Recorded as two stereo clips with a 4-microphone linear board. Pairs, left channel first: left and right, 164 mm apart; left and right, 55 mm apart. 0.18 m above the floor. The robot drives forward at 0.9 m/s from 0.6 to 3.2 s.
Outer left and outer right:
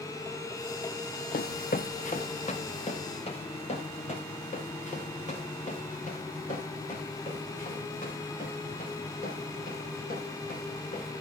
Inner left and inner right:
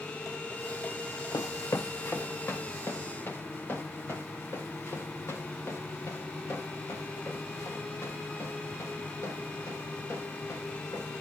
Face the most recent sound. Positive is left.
turn(degrees=60)  # may be behind; listen again after turning